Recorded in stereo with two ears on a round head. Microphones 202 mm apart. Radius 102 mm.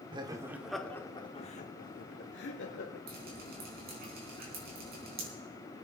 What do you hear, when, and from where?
0.1 s laughter: 20° right (ahead or behind), 0.9 m; by 3.0 s 65° left (ahead or behind), 1.4 m
3.1 s dripping: 45° right (ahead or behind), 4 m